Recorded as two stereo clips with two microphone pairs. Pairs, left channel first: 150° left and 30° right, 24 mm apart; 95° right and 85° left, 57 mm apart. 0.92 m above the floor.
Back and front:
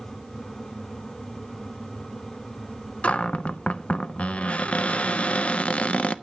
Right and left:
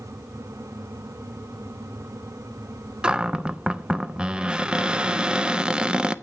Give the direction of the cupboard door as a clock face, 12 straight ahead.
6 o'clock.